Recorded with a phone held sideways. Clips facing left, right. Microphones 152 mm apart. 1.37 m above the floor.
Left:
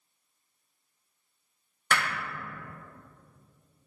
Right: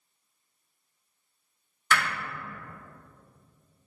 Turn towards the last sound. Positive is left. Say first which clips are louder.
# right 2 dB
turn(degrees=50)  # may be behind; listen again after turning